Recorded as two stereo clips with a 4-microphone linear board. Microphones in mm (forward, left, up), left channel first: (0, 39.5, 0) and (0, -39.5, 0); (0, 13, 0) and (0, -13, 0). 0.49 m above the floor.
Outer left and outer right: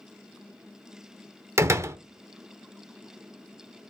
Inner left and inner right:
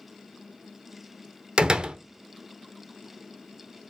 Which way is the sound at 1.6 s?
35° right (ahead or behind).